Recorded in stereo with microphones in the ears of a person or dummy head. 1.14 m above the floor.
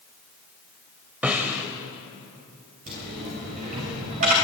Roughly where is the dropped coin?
Right.